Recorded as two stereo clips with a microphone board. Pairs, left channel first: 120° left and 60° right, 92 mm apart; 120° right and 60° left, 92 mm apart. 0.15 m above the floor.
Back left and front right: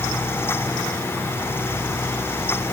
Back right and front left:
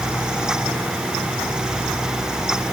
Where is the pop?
No pop in this recording.